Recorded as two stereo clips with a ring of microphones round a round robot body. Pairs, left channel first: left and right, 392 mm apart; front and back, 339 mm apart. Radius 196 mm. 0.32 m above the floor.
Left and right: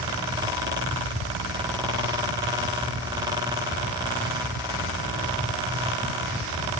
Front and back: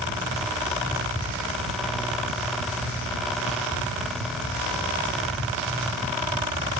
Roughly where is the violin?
No violin in this recording.